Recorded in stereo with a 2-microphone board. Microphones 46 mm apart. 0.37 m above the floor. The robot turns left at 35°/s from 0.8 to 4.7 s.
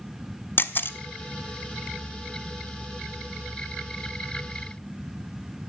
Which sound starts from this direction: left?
A camera shutter, at 0.6 s.